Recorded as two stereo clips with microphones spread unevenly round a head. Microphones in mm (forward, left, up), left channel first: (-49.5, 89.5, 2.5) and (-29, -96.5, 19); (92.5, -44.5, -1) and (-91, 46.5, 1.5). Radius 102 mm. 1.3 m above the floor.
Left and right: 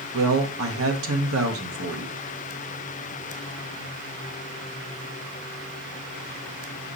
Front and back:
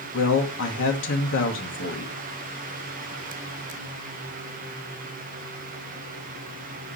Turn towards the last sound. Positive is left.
turn(degrees=-60)